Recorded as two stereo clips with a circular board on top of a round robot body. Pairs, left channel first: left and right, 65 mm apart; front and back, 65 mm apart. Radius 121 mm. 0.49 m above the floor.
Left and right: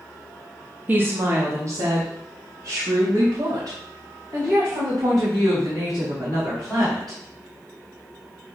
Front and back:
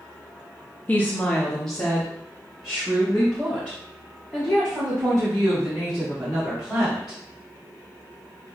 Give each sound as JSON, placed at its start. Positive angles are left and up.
{"t": 0.9, "sound": "a woman speaking", "azimuth_deg": -45, "distance_m": 1.2}